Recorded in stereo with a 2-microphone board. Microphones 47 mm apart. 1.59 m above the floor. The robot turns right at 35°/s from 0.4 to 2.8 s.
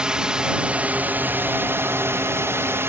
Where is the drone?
160° right; by 2.9 s 75° right.